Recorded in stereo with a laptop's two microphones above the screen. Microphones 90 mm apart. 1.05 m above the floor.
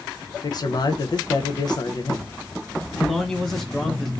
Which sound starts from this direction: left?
A man speaking, at 0.4 s.